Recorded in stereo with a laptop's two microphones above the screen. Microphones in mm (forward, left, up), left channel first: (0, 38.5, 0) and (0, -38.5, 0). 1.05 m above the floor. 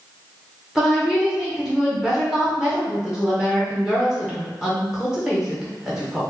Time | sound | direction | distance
0.8 | a woman speaking | 10° right (ahead or behind) | 0.5 m